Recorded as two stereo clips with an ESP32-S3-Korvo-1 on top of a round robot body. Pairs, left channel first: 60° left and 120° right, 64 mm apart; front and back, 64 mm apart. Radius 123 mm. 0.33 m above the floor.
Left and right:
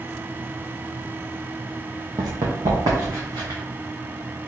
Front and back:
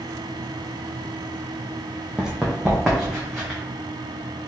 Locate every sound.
2.2 s running footsteps: 105° right, 0.7 m; by 3.6 s 100° right, 1.6 m